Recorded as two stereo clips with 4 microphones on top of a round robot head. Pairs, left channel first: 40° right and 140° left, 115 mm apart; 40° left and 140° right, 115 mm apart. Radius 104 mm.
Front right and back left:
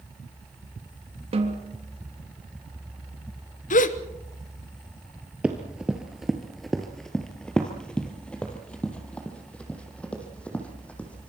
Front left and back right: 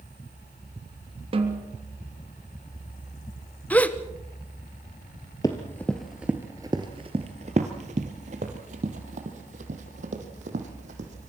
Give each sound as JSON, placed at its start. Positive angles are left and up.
{"t": 1.3, "sound": "a snare drum", "azimuth_deg": 180, "distance_m": 3.0}
{"t": 3.7, "sound": "a gasp", "azimuth_deg": -40, "distance_m": 1.2}
{"t": 5.4, "sound": "running footsteps", "azimuth_deg": 65, "distance_m": 1.5}